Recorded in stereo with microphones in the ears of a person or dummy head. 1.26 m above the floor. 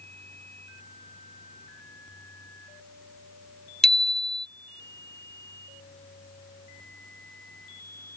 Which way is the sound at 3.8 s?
Centre (ahead or behind).